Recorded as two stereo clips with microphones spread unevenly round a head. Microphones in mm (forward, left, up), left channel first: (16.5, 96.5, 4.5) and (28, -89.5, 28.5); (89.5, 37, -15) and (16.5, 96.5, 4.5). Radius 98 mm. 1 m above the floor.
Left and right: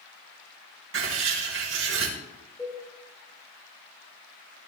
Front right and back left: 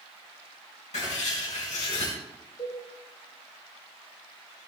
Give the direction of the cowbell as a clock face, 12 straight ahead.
12 o'clock.